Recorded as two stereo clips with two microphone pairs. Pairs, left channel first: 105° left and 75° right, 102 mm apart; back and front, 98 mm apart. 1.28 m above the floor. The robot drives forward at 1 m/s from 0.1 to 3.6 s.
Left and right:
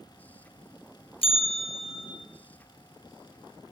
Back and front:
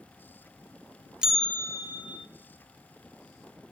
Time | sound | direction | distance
1.2 | a bell | 80° left | 0.7 m